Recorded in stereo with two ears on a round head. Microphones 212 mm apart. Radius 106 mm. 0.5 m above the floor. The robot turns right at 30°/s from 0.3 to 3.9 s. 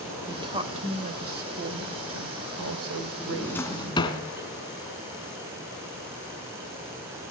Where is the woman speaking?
160° right, 2 m; by 4.2 s 55° right, 2 m.